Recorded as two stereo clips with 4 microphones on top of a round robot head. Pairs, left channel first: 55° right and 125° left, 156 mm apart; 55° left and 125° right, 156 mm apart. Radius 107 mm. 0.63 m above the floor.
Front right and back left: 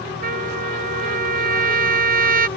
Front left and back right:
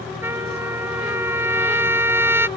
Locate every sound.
0.2 s a trumpet: 160° left